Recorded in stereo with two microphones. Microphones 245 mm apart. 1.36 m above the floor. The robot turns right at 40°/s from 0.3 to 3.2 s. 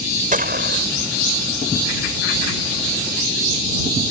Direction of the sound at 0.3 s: 35° right (ahead or behind).